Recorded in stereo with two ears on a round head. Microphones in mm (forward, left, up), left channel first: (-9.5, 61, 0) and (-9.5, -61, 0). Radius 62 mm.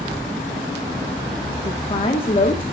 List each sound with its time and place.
1.6 s a woman speaking: 40° left (ahead or behind), 1.3 m